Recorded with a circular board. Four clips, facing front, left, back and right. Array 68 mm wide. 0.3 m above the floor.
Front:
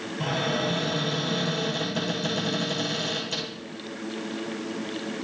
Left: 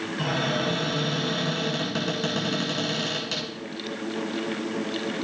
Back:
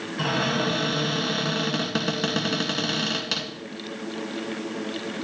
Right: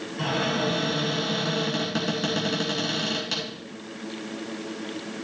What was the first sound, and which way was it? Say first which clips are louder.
A cupboard door: right 1 dB, back 2 dB; straight behind.